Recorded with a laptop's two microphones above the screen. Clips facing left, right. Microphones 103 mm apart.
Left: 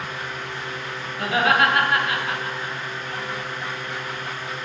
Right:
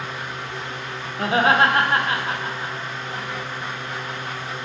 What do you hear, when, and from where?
0.0 s a fan: 30° right (ahead or behind), 0.8 m
1.2 s laughter: 30° right (ahead or behind), 0.5 m